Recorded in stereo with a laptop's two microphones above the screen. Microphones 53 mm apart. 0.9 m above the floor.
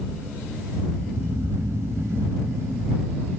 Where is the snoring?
60° right (ahead or behind).